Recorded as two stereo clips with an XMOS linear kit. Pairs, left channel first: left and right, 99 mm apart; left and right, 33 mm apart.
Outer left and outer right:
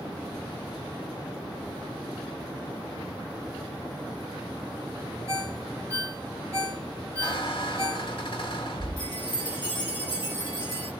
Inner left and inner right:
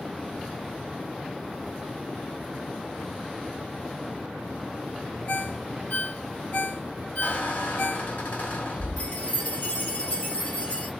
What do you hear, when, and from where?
5.3 s a ringtone: 75° left (ahead or behind), 1.7 m
7.2 s a squeak: 65° left (ahead or behind), 1.2 m
9.0 s a chime: 50° left (ahead or behind), 1.6 m